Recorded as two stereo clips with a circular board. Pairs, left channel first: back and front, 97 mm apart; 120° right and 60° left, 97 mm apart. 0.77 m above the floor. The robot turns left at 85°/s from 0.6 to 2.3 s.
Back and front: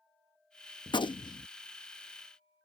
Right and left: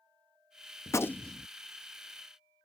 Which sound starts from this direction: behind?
A gunshot, at 0.9 s.